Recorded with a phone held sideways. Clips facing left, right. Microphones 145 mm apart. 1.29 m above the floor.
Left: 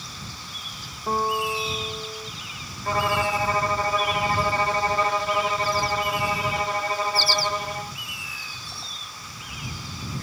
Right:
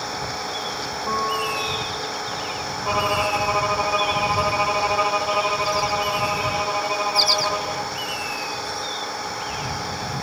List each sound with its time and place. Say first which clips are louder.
0.0 s an engine running: right 13 dB; 65° right (ahead or behind)
1.1 s a guitar: left 1 dB; 10° left (ahead or behind)
2.9 s a violin: right 1 dB; 10° right (ahead or behind)